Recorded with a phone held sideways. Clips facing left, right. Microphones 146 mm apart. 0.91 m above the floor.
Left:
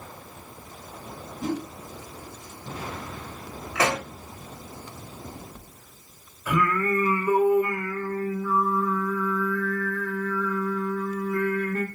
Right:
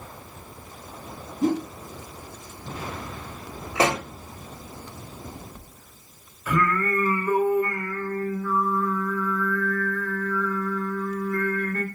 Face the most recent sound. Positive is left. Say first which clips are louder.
# even
turn(degrees=10)  # may be behind; listen again after turning